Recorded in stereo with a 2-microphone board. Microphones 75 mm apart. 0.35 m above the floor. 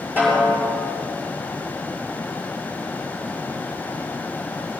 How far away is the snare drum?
About 7.5 m.